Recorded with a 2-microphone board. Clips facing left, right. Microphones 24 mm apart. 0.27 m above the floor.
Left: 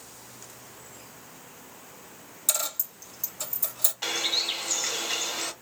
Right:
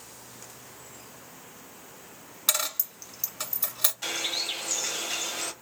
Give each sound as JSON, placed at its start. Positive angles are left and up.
{"t": 2.5, "sound": "a dropped coin", "side_deg": -55, "distance_m": 1.1}
{"t": 4.0, "sound": "a bird", "side_deg": 30, "distance_m": 1.0}